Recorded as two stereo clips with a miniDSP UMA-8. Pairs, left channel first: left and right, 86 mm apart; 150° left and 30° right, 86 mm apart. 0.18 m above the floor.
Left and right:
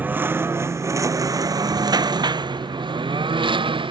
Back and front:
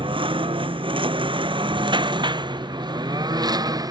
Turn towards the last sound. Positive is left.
turn(degrees=-75)